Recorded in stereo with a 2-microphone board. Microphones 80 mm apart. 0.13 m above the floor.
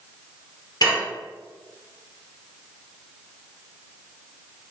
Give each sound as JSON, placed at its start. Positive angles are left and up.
{"t": 0.8, "sound": "dishes clattering", "side_deg": 55, "distance_m": 1.6}